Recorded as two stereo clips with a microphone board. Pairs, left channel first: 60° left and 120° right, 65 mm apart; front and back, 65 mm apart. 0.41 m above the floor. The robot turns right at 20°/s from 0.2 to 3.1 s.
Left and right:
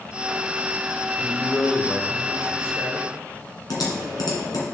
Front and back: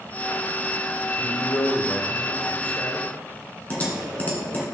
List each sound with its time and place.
1.2 s a man speaking: 25° right, 0.7 m; by 3.1 s 10° left, 0.7 m
3.7 s typing on a keyboard: 65° left, 1.9 m